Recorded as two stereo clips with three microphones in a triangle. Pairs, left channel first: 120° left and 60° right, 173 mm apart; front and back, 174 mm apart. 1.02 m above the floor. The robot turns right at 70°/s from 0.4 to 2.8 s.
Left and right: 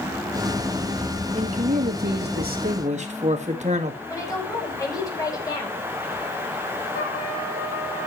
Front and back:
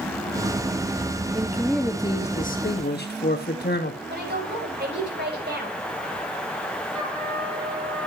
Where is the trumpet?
85° left, 7 m.